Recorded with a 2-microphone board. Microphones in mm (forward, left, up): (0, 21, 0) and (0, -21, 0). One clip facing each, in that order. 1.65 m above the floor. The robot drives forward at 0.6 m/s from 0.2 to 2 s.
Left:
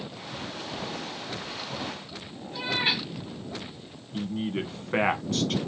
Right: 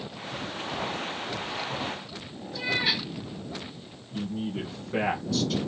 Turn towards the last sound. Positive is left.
turn(degrees=50)  # may be behind; listen again after turning